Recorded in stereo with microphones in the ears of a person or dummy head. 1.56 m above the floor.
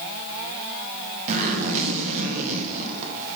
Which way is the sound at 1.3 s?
35° right (ahead or behind).